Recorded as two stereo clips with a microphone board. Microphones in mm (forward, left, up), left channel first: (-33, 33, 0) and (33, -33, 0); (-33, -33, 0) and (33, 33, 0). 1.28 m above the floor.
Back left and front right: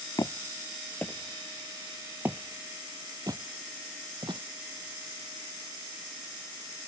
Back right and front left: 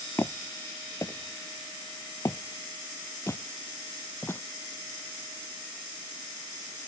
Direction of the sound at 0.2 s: 170° left.